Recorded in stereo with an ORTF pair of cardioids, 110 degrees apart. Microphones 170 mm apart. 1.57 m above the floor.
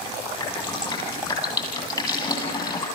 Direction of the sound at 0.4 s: 25° left.